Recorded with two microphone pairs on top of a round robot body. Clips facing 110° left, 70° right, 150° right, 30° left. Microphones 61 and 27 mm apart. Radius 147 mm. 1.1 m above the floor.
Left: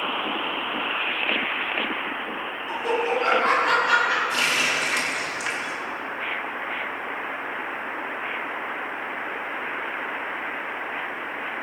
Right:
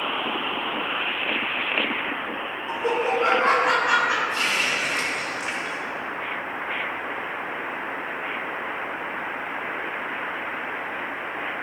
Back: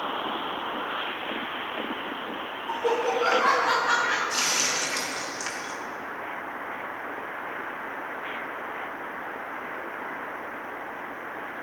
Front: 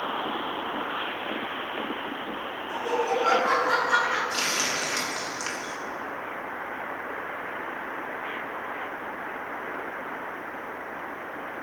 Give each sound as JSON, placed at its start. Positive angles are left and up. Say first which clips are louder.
{"t": 2.7, "sound": "laughter", "louder": "right 1 dB, back 1 dB", "azimuth_deg": -130, "distance_m": 4.5}
{"t": 4.3, "sound": "a running tap", "louder": "left 1 dB, back 1 dB", "azimuth_deg": 115, "distance_m": 1.9}